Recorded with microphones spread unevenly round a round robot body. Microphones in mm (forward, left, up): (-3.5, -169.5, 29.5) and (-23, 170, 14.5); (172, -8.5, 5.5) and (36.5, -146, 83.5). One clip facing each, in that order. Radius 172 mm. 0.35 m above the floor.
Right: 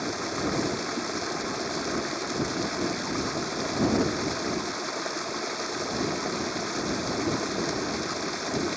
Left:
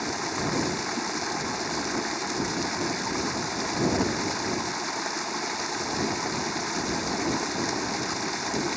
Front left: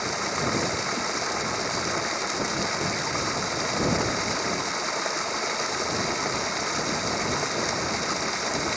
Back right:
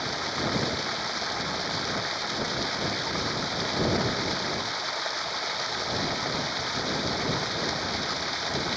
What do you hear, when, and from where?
0.0 s running water: 15° left